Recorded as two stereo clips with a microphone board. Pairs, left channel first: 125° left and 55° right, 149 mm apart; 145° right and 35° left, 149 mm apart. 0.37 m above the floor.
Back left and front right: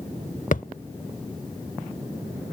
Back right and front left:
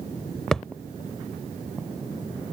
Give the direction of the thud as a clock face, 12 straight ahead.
8 o'clock.